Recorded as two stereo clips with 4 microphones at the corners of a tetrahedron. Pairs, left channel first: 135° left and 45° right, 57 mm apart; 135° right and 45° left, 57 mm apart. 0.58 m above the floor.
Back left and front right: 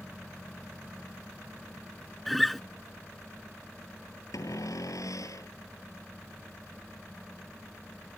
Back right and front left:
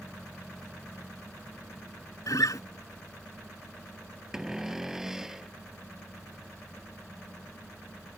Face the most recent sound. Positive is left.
turn(degrees=125)